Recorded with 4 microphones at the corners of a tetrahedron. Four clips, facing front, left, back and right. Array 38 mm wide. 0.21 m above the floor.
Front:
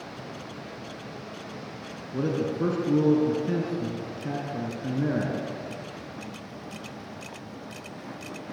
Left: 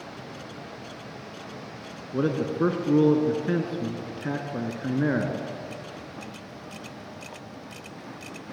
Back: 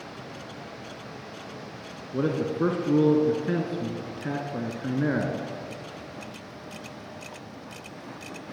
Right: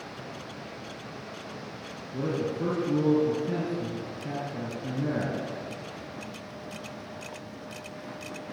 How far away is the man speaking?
About 3 m.